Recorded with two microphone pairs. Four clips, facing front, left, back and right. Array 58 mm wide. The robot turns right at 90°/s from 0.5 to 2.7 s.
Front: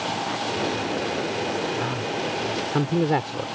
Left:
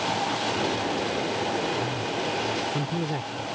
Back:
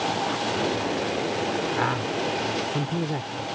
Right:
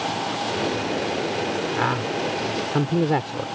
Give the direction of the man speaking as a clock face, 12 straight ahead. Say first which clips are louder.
Right 5 dB, back 1 dB; 4 o'clock.